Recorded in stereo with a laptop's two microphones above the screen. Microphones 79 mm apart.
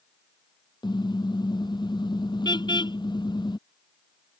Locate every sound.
0.8 s a car horn: 70° left (ahead or behind)